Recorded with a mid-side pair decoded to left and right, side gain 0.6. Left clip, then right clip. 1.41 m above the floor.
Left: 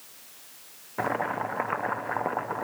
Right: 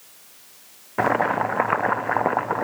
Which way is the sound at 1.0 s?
40° right.